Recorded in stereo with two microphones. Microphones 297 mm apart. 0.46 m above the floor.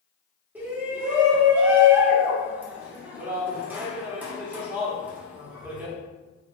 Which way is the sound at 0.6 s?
5° right (ahead or behind).